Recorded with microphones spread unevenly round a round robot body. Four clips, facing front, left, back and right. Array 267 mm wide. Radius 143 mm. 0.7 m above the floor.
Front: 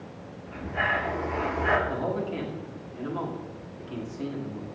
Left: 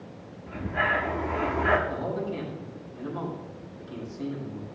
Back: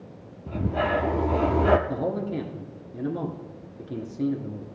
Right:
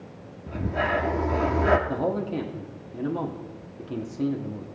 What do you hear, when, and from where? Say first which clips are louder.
0.5 s breathing: right 2 dB, back 4 dB; 160° right, 0.6 m
1.9 s a man speaking: right 4 dB, back 1 dB; 125° right, 1.4 m